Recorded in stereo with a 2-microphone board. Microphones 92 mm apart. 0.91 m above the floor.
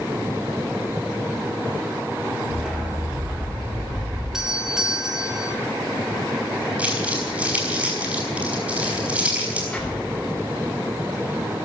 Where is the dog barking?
5° right (ahead or behind), 4.5 m; by 4.2 s 30° right (ahead or behind), 6 m.